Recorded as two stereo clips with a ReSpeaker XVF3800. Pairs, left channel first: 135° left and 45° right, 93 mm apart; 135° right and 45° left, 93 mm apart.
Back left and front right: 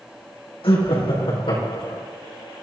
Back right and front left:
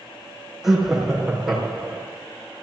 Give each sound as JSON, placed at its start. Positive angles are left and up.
{"t": 0.6, "sound": "laughter", "azimuth_deg": 130, "distance_m": 5.0}